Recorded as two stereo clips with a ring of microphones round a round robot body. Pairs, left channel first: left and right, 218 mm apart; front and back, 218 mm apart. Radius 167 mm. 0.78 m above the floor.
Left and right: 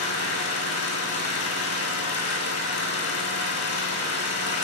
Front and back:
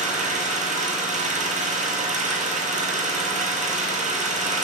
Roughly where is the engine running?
Behind left.